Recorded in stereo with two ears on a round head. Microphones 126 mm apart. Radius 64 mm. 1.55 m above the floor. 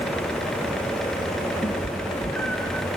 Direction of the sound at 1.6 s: 10° left (ahead or behind).